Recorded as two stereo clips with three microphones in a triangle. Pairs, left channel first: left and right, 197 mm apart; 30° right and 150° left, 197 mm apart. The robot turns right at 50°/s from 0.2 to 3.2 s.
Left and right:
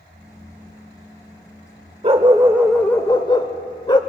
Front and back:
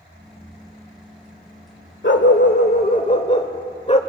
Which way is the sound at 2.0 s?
35° right.